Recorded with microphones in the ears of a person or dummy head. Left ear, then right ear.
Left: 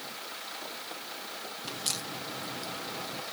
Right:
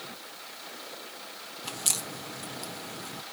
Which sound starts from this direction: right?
A crack, at 1.6 s.